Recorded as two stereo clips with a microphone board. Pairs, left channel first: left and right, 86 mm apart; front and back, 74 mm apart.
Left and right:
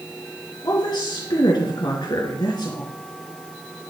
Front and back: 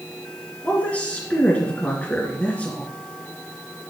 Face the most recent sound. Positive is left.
turn(degrees=70)